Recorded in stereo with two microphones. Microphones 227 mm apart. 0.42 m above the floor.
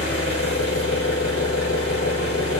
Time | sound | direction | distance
0.0 | an engine running | 70° left (ahead or behind) | 1.2 m